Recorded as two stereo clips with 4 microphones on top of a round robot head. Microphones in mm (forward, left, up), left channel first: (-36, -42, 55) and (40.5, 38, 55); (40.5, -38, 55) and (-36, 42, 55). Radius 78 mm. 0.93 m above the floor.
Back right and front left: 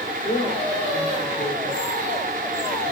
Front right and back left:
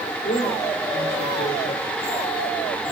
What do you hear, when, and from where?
0.2 s a woman speaking: 80° right, 3 m